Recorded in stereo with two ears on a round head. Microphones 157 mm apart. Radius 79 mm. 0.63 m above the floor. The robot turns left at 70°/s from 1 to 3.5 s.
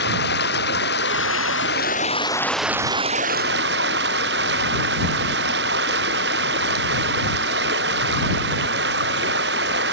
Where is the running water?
110° left; by 9.9 s 65° right.